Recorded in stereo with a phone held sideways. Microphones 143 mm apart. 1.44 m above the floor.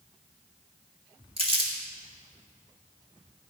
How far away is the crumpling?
About 2 m.